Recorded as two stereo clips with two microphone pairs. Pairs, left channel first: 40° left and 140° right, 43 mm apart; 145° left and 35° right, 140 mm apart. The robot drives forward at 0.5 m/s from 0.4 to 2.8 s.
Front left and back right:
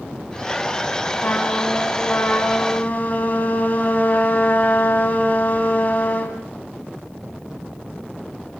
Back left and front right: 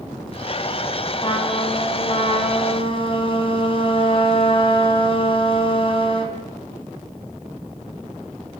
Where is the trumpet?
85° left, 4 m; by 6.4 s 95° left, 4.5 m.